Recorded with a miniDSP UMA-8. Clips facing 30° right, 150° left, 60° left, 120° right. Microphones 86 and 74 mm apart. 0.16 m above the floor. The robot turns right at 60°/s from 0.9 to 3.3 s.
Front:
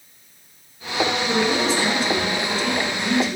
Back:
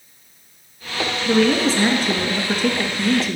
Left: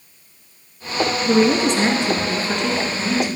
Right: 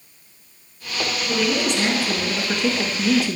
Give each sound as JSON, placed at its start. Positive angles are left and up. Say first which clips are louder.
{"t": 1.2, "sound": "a woman speaking", "louder": "back 8 dB, left 6 dB", "azimuth_deg": 75, "distance_m": 1.8}